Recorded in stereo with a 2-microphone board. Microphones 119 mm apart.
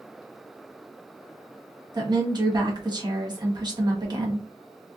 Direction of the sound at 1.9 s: 35° right (ahead or behind).